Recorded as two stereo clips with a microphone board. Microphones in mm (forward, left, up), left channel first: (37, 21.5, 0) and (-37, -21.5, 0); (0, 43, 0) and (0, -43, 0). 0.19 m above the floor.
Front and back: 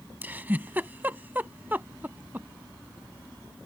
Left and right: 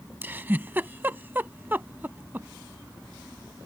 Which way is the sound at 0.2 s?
120° right.